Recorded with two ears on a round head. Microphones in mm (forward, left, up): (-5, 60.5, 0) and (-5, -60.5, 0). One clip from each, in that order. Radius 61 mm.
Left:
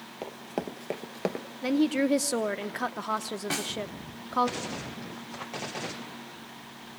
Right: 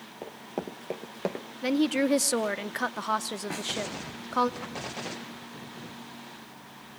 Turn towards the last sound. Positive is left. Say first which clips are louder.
# left 2 dB
turn(degrees=65)  # may be behind; listen again after turning